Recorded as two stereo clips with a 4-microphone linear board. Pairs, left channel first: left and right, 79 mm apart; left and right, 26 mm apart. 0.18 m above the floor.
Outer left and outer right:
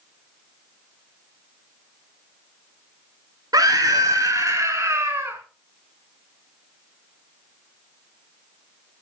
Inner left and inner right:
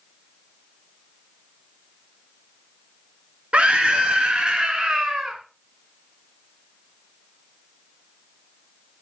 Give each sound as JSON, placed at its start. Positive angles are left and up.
{"t": 3.5, "sound": "a scream", "side_deg": -55, "distance_m": 2.5}